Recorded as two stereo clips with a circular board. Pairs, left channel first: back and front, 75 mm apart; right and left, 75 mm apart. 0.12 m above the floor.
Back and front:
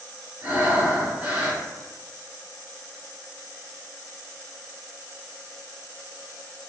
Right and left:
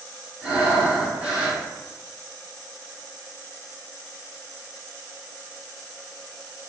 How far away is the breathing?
About 1.4 m.